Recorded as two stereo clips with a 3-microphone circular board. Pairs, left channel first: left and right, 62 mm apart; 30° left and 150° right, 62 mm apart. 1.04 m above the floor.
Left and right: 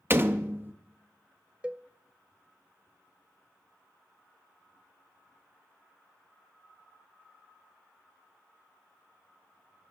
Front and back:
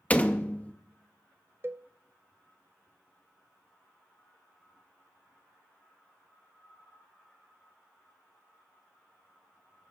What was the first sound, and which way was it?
A door slam, 35° right.